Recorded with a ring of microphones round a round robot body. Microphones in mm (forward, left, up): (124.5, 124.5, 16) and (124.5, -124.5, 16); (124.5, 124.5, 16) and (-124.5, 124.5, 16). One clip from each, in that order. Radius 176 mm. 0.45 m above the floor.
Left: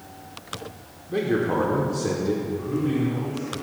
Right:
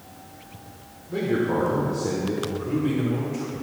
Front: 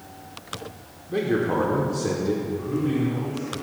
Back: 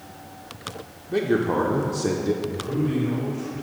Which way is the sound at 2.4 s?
85° right.